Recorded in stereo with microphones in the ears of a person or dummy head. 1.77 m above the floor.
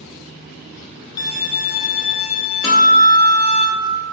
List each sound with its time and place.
1.2 s a violin: 30° left (ahead or behind), 0.6 m
2.6 s a guitar: 15° left (ahead or behind), 1.0 m